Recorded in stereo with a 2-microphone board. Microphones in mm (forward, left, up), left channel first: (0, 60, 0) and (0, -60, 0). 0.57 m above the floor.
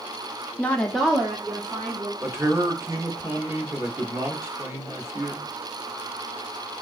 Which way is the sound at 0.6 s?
15° left (ahead or behind).